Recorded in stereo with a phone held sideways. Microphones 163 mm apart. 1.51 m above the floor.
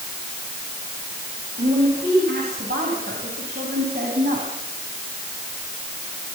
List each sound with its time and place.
1.6 s a woman speaking: 80° right, 8.5 m; by 4.5 s 70° right (ahead or behind), 10 m